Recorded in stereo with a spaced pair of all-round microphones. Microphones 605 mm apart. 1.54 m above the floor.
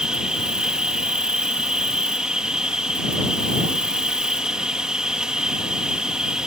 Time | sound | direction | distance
0.0 | an insect | centre (ahead or behind) | ?